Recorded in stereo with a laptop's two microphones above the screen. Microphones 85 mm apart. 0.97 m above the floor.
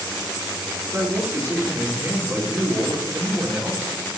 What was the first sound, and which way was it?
A man speaking, 30° right (ahead or behind).